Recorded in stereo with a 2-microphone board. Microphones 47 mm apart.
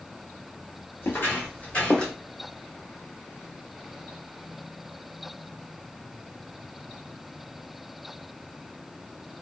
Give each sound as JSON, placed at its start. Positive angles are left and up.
{"t": 1.0, "sound": "footsteps", "side_deg": 50, "distance_m": 1.9}